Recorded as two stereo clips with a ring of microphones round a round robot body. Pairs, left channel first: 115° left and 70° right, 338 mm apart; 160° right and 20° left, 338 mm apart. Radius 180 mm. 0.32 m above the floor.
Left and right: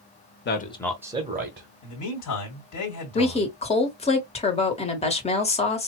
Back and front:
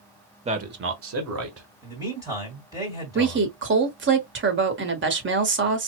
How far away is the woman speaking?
About 1.3 m.